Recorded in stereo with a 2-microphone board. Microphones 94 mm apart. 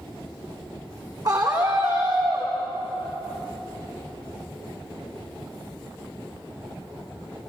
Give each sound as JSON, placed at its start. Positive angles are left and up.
{"t": 1.2, "sound": "a scream", "side_deg": -45, "distance_m": 8.0}